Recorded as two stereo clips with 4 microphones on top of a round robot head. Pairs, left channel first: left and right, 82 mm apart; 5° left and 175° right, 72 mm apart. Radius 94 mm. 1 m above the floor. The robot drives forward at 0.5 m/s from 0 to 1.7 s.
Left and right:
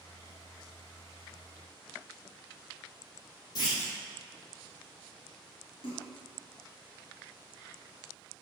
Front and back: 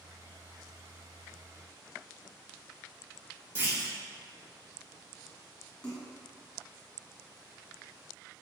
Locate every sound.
3.5 s a clunk: 130° left, 2.5 m
5.8 s a splash: 85° left, 2.5 m